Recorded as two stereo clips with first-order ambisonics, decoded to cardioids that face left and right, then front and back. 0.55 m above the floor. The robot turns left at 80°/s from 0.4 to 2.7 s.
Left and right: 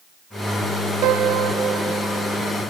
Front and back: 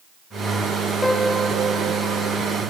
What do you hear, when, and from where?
1.0 s a piano: 80° right, 0.6 m; by 2.4 s 175° left, 0.6 m